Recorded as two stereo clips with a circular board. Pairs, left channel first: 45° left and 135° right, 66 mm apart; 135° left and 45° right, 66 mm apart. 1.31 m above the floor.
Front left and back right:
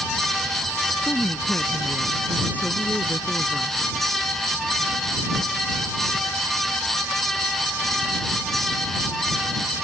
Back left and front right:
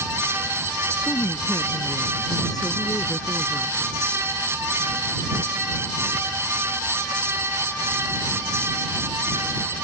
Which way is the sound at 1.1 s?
110° left.